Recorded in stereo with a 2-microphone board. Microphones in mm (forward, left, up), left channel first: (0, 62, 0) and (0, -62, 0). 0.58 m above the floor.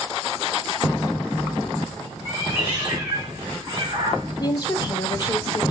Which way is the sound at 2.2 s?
20° right (ahead or behind).